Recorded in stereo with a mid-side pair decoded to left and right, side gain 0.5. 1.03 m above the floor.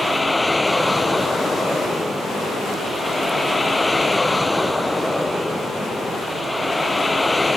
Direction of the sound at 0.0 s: 15° left.